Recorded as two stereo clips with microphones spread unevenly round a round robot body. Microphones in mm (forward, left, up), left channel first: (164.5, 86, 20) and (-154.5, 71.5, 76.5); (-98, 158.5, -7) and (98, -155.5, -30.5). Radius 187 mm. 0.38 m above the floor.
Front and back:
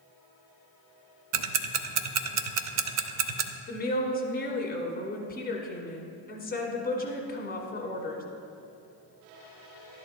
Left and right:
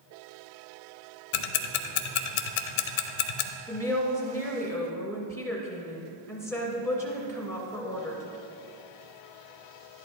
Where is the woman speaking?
40° left, 1.4 m.